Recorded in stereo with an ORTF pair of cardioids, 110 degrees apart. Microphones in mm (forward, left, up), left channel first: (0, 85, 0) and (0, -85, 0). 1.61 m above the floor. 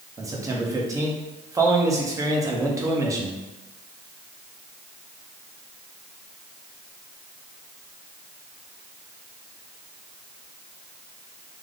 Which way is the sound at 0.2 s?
20° right.